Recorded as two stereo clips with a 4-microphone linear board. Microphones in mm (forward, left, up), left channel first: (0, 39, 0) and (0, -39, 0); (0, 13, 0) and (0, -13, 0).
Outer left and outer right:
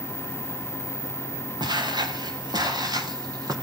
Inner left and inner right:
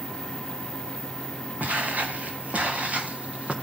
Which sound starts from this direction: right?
Footsteps, at 1.6 s.